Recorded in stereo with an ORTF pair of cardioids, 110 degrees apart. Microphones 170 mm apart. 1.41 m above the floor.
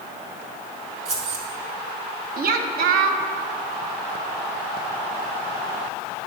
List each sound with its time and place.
1.1 s keys jangling: 40° right, 1.9 m
2.4 s a woman speaking: 60° right, 0.9 m